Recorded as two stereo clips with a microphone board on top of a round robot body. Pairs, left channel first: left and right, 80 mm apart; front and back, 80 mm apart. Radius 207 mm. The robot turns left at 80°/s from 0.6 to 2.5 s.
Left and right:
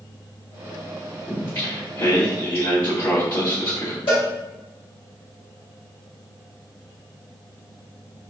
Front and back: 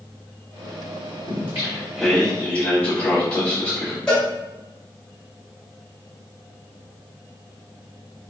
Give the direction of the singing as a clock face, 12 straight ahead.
7 o'clock.